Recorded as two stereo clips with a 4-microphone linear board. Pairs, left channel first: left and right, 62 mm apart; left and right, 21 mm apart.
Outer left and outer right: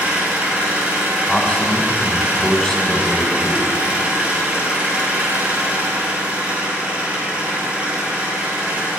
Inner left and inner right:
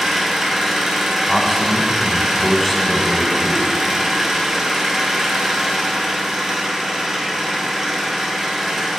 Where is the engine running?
20° right (ahead or behind), 1.8 m.